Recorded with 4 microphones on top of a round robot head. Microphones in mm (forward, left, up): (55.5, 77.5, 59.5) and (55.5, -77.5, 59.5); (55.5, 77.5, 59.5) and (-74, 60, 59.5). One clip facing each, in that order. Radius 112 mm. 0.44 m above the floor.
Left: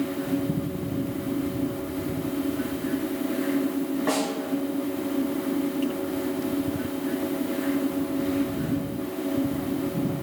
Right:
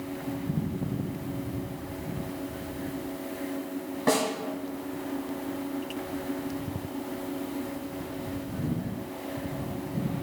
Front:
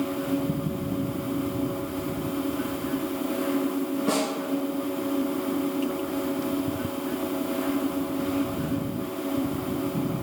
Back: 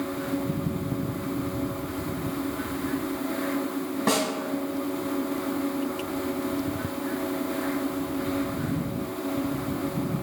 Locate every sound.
4.1 s a snare drum: 150° right, 1.4 m